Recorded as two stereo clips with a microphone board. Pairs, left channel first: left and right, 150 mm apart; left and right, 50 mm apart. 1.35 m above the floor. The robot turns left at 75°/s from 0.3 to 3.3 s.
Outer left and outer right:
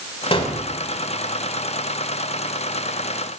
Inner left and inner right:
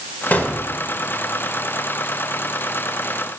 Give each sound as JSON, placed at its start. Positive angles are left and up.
{"t": 0.3, "sound": "a gunshot", "side_deg": 40, "distance_m": 1.4}